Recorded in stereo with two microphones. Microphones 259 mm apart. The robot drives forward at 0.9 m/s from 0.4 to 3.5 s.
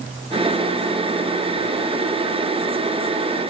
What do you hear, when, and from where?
Only background noise.